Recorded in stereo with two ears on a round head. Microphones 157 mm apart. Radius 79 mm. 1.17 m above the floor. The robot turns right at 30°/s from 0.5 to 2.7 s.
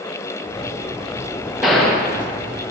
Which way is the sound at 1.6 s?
Centre (ahead or behind).